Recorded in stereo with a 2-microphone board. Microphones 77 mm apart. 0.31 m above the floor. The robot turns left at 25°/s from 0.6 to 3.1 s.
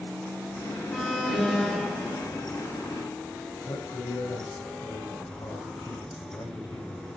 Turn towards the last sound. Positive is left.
turn(degrees=80)